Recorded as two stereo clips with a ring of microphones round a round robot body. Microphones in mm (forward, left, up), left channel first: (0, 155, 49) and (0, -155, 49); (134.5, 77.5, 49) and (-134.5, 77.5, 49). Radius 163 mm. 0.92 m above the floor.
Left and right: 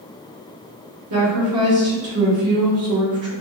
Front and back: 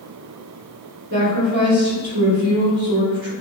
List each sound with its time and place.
1.1 s a woman speaking: 125° right, 1.6 m